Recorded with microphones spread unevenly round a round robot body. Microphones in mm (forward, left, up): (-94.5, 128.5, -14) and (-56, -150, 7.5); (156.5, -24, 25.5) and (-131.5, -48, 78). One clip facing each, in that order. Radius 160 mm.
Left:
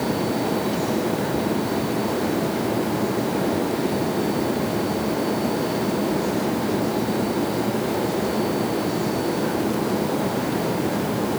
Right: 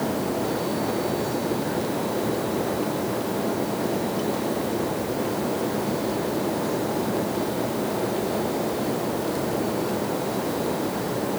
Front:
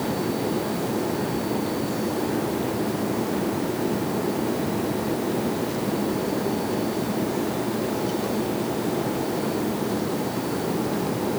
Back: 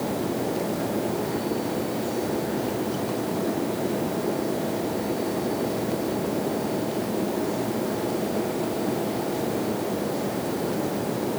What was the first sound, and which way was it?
Only background noise.